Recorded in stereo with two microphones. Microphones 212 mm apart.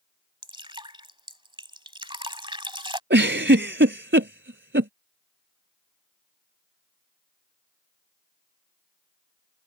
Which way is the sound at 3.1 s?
60° right (ahead or behind).